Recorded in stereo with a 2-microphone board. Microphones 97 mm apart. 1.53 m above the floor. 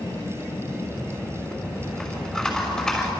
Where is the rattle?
10° left (ahead or behind), 6 m.